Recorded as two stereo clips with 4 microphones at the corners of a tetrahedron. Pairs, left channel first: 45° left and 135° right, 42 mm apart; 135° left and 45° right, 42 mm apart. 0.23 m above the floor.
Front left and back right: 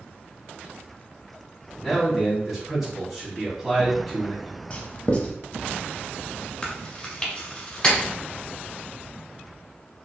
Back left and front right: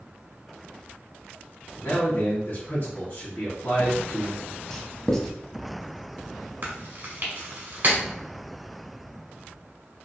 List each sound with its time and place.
1.8 s a man speaking: 140° left, 1.8 m
4.7 s writing: 65° left, 0.6 m
6.6 s chewing: 20° right, 1.2 m